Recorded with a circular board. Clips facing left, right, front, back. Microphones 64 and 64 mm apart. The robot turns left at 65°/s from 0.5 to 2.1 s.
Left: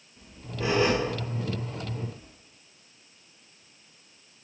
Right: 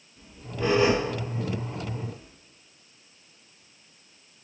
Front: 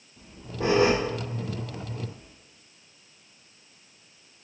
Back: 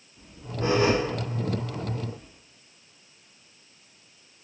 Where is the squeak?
20° left, 3 m; by 2.3 s 85° right, 3 m.